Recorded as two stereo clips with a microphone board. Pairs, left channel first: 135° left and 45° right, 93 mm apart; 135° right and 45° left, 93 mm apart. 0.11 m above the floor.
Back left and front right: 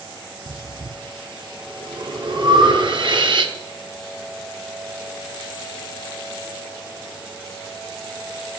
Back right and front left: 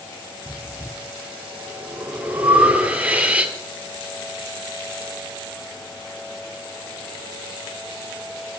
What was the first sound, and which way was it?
Breathing, 30° right.